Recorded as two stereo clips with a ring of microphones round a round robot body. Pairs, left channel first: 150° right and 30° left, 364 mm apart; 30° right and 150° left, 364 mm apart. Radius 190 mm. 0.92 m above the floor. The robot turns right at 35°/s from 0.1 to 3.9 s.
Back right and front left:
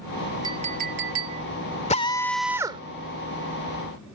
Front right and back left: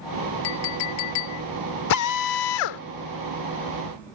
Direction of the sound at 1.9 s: 75° right.